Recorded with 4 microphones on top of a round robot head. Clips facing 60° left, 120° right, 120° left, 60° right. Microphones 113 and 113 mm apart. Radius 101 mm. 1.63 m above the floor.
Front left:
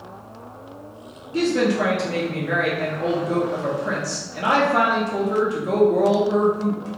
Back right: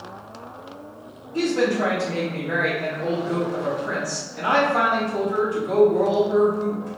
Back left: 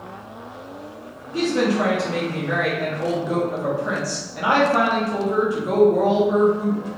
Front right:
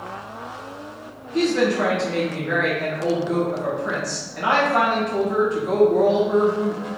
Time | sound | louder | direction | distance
1.3 | a woman speaking | front left 1 dB, front right 1 dB | 40° left | 1.5 m